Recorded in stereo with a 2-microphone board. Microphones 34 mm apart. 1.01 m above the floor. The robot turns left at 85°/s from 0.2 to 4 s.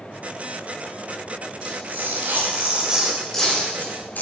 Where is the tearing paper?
45° right (ahead or behind), 4 m; by 4.2 s 65° left (ahead or behind), 4 m.